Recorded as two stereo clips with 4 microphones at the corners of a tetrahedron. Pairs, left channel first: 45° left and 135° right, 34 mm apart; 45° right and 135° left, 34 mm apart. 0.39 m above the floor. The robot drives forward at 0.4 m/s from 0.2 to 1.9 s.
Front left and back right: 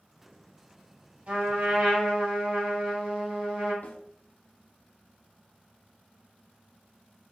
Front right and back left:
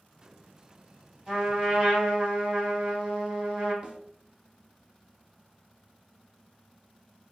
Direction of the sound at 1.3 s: 160° right.